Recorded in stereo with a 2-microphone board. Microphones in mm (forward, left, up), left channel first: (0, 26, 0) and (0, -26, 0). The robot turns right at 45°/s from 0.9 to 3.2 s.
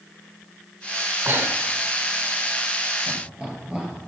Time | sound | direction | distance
1.2 | breathing | 40° right (ahead or behind) | 2 m
3.1 | laughter | 20° right (ahead or behind) | 7 m